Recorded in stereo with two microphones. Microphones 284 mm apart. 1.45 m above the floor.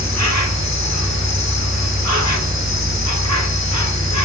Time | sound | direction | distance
0.0 | an insect | 70° left (ahead or behind) | 0.8 m